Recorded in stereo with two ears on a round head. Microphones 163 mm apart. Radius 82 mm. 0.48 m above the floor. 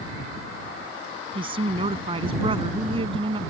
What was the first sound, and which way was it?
A woman speaking, 30° right (ahead or behind).